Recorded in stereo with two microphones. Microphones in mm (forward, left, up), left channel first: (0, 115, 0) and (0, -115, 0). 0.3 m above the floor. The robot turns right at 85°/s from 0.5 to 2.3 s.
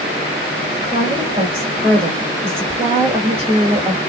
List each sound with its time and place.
0.8 s a woman speaking: 160° right, 1.7 m; by 4.0 s 35° right, 1.7 m